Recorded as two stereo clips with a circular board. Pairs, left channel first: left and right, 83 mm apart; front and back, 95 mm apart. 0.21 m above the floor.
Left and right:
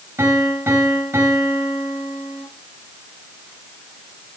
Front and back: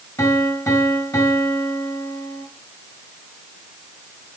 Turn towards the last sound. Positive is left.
turn(degrees=-45)